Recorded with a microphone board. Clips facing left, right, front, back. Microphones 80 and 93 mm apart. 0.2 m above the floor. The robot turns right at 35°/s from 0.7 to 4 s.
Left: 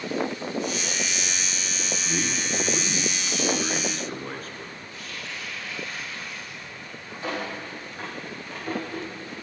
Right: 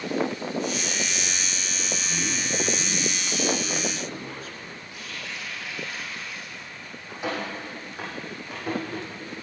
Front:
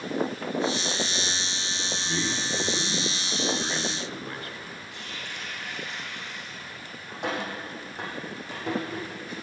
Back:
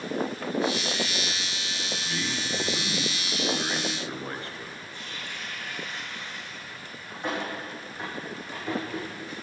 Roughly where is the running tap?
Ahead.